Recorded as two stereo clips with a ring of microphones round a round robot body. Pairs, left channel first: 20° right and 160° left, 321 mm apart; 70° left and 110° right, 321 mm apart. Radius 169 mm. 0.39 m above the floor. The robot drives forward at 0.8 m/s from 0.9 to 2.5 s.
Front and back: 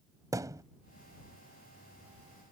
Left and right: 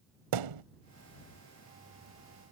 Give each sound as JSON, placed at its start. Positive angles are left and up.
{"t": 0.3, "sound": "a thud", "azimuth_deg": -125}